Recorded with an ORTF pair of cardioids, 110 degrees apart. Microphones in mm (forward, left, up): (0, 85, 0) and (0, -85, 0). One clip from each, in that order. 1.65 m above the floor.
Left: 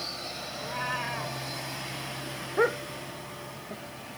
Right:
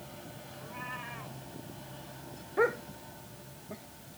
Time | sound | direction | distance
0.6 | a cat meowing | 50° left | ?
2.6 | a dog barking | 15° left | ?